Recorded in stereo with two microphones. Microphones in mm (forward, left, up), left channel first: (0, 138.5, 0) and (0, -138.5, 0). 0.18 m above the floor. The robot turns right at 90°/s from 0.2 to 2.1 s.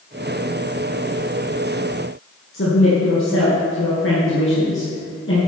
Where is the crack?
No crack in this recording.